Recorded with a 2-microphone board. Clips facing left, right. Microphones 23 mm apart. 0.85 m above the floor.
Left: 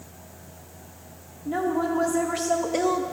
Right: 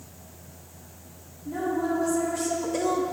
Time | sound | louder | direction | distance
1.4 | a woman speaking | left 2 dB | 75° left (ahead or behind) | 1.8 m